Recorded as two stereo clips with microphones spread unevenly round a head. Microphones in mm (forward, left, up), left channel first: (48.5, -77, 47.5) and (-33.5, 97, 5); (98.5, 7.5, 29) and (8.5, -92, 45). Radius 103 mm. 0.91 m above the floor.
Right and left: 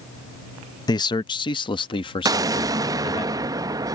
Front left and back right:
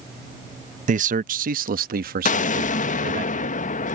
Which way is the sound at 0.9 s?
140° right.